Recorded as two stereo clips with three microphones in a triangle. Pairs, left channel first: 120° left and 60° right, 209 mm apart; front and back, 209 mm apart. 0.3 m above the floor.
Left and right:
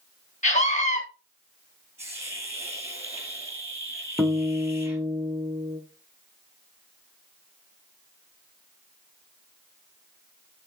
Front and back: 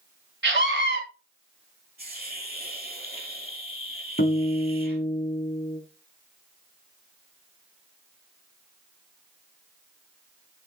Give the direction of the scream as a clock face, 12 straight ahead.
6 o'clock.